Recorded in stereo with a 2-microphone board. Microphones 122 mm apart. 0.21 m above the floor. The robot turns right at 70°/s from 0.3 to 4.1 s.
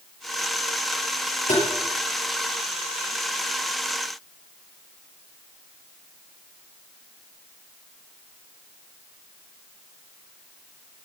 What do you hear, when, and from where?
1.5 s tapping: 70° left (ahead or behind), 5 m; by 1.7 s 60° left (ahead or behind), 5 m